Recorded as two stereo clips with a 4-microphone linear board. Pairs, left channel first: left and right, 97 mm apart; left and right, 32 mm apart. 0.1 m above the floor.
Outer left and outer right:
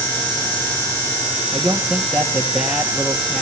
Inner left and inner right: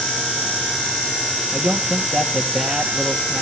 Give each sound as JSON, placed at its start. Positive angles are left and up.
{"t": 1.5, "sound": "a man speaking", "side_deg": -10, "distance_m": 2.5}